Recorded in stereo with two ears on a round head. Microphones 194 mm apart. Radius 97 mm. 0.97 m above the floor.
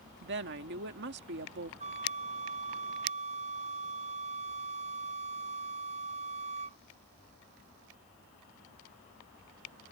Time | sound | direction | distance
0.2 | a woman speaking | 55° right (ahead or behind) | ?
1.8 | a flute | 30° right (ahead or behind) | ?